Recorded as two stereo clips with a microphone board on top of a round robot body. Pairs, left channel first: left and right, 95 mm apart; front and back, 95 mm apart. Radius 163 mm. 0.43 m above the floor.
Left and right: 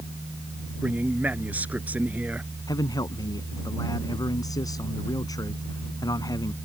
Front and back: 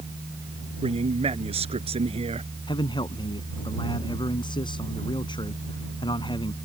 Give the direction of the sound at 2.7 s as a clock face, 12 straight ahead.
11 o'clock.